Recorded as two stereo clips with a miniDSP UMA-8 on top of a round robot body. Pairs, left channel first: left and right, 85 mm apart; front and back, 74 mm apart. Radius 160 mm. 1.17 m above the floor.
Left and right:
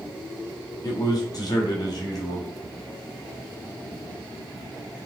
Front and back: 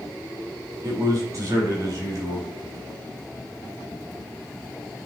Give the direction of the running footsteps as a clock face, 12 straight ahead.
No running footsteps in this recording.